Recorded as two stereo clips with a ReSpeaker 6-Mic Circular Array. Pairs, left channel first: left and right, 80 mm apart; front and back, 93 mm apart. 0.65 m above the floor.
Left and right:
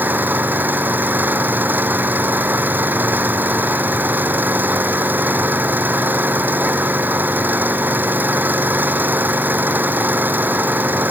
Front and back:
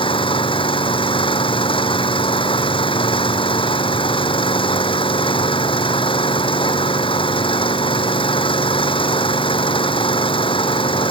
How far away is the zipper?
I don't hear a zipper.